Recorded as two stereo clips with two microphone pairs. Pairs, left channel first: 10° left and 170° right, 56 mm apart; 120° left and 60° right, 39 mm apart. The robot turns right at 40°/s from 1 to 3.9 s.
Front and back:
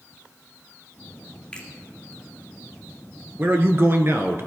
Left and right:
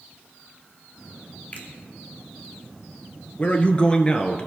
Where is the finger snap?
80° left, 2.5 m; by 1.7 s 85° left, 2.5 m.